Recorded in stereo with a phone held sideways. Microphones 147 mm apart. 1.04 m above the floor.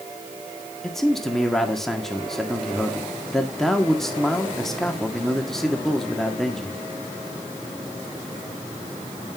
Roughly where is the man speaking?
Centre.